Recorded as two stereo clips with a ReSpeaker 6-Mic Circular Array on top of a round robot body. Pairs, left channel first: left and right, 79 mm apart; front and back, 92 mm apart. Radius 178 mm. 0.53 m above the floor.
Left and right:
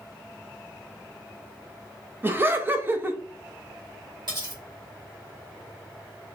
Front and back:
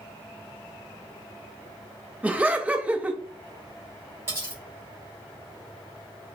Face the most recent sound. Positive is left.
turn(degrees=-115)